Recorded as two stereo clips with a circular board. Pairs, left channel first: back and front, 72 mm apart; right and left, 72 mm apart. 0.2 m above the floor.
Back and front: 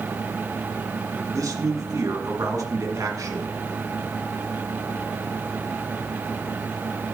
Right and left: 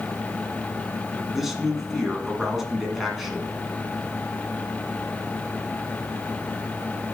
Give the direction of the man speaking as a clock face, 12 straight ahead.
12 o'clock.